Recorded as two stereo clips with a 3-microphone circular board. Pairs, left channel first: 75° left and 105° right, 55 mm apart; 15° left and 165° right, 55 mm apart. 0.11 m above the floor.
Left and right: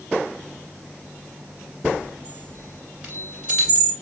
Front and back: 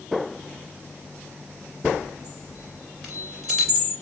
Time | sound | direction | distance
1.8 | a chime | 75° right | 1.8 m